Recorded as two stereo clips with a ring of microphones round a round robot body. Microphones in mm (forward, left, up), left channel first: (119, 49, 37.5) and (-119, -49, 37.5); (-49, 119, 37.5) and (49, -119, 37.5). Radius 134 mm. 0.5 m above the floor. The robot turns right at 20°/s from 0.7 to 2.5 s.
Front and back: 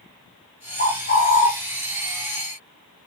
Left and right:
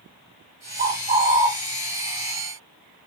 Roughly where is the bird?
Ahead right.